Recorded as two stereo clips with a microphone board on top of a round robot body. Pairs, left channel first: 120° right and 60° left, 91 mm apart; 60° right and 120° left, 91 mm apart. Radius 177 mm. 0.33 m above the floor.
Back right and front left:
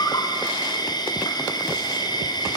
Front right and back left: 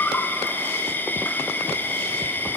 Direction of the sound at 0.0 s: 120° right.